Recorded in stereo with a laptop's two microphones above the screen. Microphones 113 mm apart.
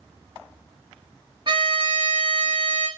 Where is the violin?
40° right (ahead or behind), 0.8 m.